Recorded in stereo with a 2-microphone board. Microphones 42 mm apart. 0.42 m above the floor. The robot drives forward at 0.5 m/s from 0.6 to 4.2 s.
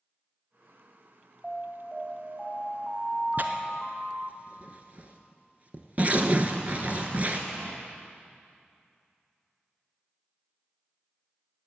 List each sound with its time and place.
1.4 s an alarm: 10° right (ahead or behind), 2.5 m; by 4.4 s 20° right (ahead or behind), 1.5 m
3.4 s tearing paper: 45° right (ahead or behind), 1.1 m; by 7.4 s 35° right (ahead or behind), 1.5 m